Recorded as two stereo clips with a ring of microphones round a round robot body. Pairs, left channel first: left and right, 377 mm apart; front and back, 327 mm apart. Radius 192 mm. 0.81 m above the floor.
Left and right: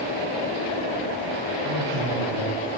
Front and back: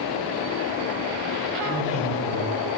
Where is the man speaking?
60° right, 7.5 m; by 2.8 s 55° right, 8.5 m.